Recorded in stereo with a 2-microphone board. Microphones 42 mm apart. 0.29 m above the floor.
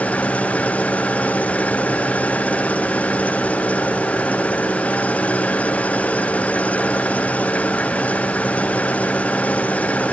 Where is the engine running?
35° left (ahead or behind).